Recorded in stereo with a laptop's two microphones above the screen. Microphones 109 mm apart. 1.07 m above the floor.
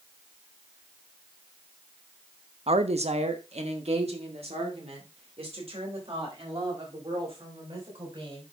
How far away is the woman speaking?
About 0.9 m.